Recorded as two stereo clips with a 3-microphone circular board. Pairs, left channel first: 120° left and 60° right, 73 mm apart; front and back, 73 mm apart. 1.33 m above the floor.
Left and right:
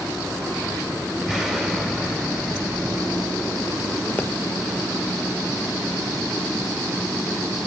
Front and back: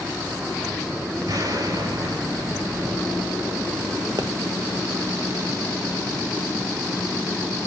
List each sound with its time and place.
1.3 s an explosion: 145° right, 4 m
4.2 s a pop: straight behind, 1.3 m